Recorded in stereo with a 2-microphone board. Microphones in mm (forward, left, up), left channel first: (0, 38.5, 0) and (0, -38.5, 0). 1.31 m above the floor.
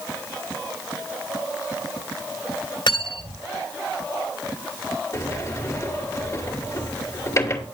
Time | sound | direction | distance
2.9 | cutlery clinking | 75° left (ahead or behind) | 2 m
5.1 | a sliding door | 35° left (ahead or behind) | 2.5 m